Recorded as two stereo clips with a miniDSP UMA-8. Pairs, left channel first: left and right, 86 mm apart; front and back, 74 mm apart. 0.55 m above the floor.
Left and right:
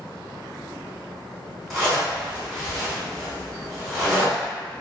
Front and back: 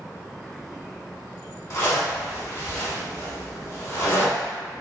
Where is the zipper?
Straight ahead, 1.1 m.